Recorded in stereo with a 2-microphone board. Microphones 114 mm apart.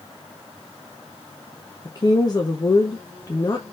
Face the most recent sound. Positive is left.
turn(degrees=35)  # may be behind; listen again after turning